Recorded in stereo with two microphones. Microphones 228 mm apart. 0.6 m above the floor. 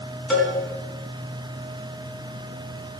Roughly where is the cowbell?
Centre.